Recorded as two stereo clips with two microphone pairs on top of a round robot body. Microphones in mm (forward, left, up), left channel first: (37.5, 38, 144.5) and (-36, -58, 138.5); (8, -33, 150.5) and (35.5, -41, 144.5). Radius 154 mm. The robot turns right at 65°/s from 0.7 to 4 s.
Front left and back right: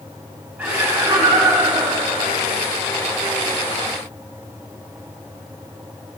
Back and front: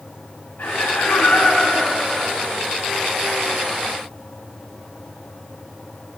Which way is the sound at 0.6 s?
155° left.